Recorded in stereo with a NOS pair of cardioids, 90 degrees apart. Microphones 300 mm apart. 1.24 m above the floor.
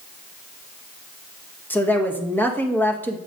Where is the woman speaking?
5° left, 1.6 m.